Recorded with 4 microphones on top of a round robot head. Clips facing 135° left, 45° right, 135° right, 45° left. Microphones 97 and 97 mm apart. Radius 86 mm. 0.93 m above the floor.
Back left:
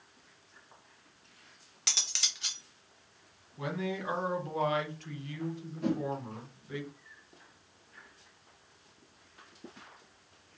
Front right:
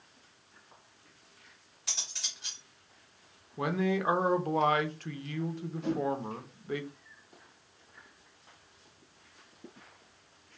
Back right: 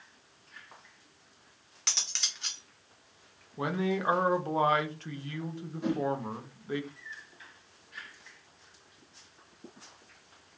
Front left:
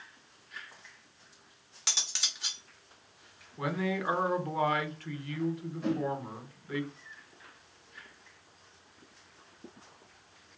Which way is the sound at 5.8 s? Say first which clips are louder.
Even, back right 1 dB; 150° left.